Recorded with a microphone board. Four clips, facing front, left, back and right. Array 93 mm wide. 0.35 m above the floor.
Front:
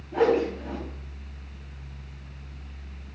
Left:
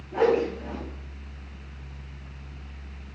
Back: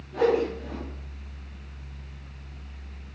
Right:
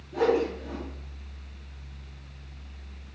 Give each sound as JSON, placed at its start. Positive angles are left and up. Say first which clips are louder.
{"t": 0.1, "sound": "a whoosh", "louder": "left 2 dB, front 1 dB", "azimuth_deg": 40, "distance_m": 1.2}